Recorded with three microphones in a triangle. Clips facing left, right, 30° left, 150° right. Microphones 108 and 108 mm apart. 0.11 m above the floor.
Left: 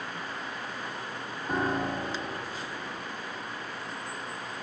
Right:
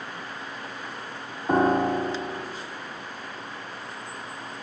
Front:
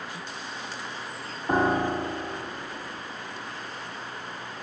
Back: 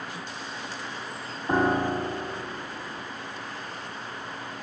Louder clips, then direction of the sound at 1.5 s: Right 9 dB, even; 55° right.